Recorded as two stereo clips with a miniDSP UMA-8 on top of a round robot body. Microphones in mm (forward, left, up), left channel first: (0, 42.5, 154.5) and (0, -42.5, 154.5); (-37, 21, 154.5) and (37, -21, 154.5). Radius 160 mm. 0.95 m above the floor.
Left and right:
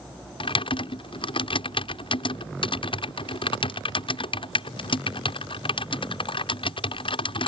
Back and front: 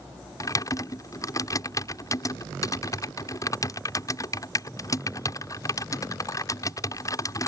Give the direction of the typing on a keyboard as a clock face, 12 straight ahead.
9 o'clock.